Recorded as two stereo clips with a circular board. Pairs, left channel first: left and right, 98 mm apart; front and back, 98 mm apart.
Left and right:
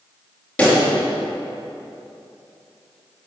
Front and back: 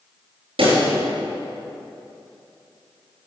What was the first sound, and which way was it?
A pop, 165° left.